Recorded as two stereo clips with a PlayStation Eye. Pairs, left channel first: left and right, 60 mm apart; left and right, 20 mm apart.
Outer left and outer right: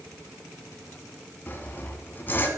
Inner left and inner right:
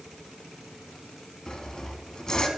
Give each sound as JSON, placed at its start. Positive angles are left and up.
{"t": 1.5, "sound": "sawing", "side_deg": 35, "distance_m": 1.5}